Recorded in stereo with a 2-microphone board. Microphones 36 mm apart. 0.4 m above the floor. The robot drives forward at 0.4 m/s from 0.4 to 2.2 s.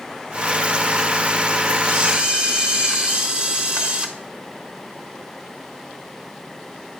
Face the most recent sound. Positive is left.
turn(degrees=-35)  # may be behind; listen again after turning